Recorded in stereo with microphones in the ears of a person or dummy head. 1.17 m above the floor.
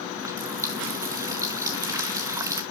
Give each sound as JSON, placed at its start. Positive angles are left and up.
{"t": 0.2, "sound": "a running tap", "side_deg": -20, "distance_m": 0.6}